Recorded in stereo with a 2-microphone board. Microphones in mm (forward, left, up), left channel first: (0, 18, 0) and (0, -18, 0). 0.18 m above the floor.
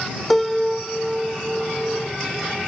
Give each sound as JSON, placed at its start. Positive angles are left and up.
{"t": 0.3, "sound": "a piano", "side_deg": 0}